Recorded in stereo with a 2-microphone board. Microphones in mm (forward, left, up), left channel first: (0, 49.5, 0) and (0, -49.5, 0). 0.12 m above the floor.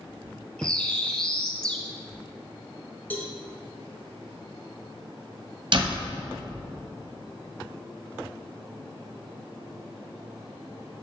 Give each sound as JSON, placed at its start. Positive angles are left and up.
{"t": 0.6, "sound": "a bird", "side_deg": 10, "distance_m": 0.9}
{"t": 3.1, "sound": "a cowbell", "side_deg": 20, "distance_m": 1.4}
{"t": 5.7, "sound": "a door slam", "side_deg": -55, "distance_m": 1.6}